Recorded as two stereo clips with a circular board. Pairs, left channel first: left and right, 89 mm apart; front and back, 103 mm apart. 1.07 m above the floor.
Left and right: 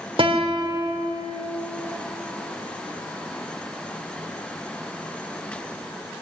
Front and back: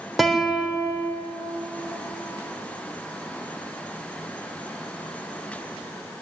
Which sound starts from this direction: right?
A guitar, at 0.2 s.